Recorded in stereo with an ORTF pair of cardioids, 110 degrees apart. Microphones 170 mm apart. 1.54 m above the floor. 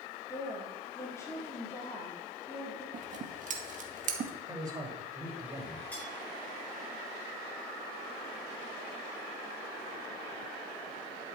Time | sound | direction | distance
0.3 | a woman speaking | 15° left | 4 m
2.9 | scissors | 50° right | 2.0 m
4.5 | a man speaking | 20° right | 5 m
5.9 | cutlery clinking | 10° left | 6 m